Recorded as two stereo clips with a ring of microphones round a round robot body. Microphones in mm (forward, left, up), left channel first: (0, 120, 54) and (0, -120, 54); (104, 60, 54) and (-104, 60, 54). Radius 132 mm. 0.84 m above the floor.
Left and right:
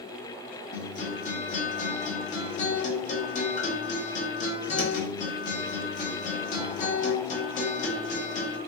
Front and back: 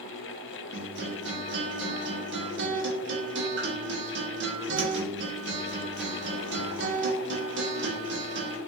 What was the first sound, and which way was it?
A guitar, 150° left.